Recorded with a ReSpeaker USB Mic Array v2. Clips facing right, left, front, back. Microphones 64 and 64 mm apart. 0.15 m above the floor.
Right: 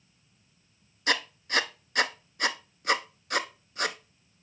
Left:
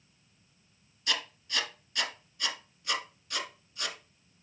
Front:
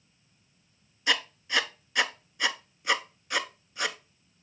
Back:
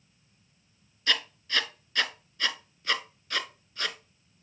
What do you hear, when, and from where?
1.1 s writing: 70° right, 0.5 m